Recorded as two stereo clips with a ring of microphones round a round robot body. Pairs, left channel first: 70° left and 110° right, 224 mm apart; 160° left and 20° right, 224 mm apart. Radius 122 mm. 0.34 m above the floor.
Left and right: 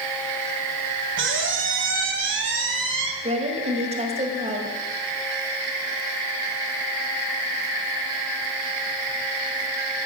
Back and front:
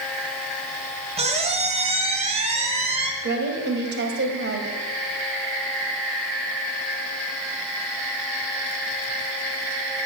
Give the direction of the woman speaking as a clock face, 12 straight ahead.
2 o'clock.